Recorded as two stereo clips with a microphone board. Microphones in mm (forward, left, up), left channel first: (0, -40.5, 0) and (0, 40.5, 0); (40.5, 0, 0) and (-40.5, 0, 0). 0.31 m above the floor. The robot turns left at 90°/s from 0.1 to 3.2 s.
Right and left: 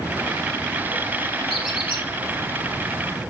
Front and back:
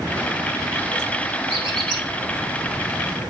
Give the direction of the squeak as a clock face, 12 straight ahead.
6 o'clock.